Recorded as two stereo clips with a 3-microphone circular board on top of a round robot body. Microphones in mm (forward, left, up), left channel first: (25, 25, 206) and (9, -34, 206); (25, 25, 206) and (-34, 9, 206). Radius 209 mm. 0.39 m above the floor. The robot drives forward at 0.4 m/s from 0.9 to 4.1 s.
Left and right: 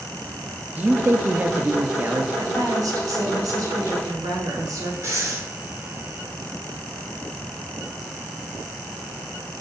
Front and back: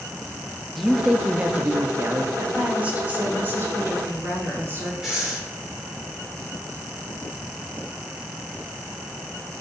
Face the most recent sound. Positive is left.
turn(degrees=-80)